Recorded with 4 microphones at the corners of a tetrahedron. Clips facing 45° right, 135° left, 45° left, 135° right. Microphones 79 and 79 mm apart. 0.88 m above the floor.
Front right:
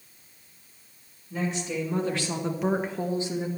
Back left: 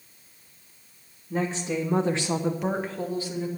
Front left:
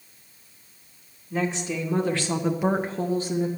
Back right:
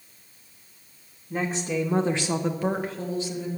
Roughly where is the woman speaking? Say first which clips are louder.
Back left 2 dB, even; behind.